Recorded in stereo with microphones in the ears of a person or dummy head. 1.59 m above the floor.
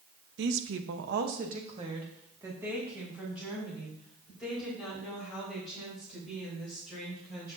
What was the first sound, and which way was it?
A woman speaking, 70° right (ahead or behind).